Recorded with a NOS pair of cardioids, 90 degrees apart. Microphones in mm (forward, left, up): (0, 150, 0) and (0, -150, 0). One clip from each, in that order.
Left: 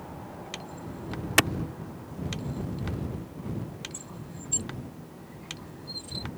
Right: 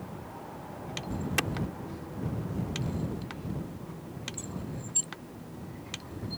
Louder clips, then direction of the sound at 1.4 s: Left 8 dB; 55° left.